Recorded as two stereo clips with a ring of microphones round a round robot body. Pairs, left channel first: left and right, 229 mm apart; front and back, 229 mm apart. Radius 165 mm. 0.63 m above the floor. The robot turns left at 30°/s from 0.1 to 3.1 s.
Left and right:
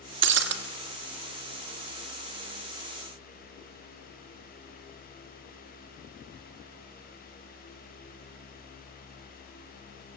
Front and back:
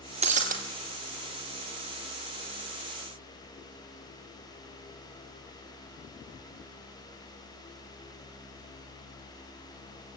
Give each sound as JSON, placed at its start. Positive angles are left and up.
{"t": 0.2, "sound": "breaking glass", "azimuth_deg": -115, "distance_m": 0.9}